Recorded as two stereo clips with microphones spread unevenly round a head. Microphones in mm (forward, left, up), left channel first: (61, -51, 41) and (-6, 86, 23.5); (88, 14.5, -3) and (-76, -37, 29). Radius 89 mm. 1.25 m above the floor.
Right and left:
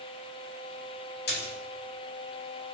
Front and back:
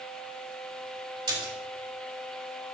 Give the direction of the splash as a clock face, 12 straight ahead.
3 o'clock.